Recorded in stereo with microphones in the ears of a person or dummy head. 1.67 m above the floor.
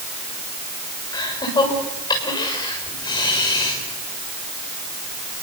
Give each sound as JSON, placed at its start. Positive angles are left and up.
{"t": 1.1, "sound": "laughter", "side_deg": 20, "distance_m": 7.0}